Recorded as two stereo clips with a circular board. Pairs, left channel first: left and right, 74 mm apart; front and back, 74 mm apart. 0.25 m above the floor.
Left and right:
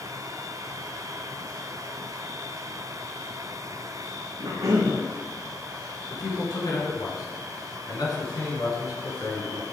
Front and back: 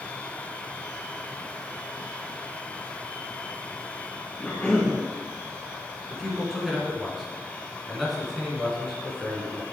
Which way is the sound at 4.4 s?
75° right.